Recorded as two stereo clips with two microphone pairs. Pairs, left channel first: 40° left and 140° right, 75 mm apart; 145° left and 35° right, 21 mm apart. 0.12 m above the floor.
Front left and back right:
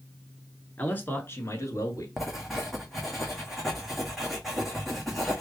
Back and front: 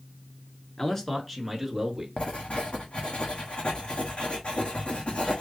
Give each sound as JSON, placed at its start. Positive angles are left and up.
{"t": 0.8, "sound": "a man speaking", "azimuth_deg": 105, "distance_m": 1.3}
{"t": 2.2, "sound": "writing", "azimuth_deg": 135, "distance_m": 1.2}